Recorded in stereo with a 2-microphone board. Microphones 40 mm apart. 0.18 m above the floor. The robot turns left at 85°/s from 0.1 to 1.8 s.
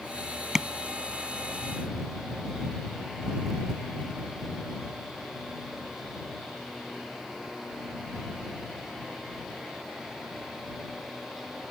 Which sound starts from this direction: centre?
Tapping, at 0.6 s.